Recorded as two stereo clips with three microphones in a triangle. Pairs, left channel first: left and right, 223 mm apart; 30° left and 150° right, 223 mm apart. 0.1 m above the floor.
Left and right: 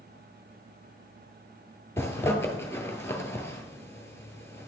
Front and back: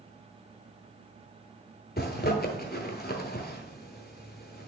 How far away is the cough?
No cough in this recording.